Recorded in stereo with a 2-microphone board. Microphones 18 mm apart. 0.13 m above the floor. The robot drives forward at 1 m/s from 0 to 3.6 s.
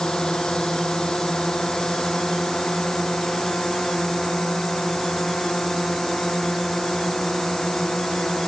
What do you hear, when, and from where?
0.0 s a drone: 50° left (ahead or behind); by 8.5 s 40° left (ahead or behind)